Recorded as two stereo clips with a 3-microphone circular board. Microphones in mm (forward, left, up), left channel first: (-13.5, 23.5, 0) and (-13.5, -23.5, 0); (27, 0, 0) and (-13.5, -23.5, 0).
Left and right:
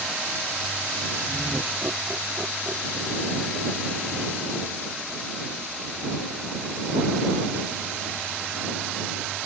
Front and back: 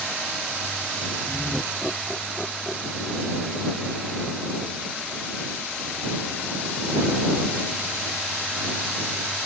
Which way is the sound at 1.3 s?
45° right.